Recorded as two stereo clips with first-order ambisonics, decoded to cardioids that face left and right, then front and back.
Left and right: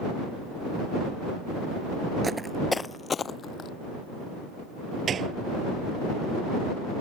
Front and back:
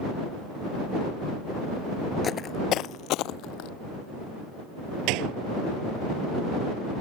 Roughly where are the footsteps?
Ahead right.